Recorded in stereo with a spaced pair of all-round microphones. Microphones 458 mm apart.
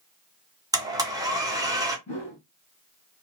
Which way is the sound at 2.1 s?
15° left (ahead or behind).